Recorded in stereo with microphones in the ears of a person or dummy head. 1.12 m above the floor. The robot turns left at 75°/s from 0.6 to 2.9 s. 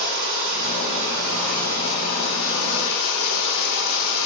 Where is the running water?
115° right, 1.1 m; by 4.3 s 70° left, 1.1 m.